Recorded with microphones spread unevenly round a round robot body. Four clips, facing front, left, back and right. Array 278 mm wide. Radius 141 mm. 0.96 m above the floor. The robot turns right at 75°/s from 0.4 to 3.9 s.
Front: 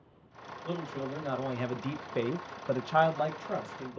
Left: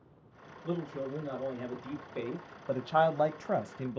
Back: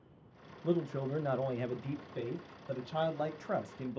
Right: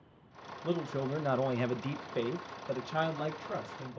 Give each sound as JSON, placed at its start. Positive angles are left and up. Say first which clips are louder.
{"t": 0.6, "sound": "a man speaking", "louder": "right 2 dB, back 3 dB", "azimuth_deg": -140, "distance_m": 0.5}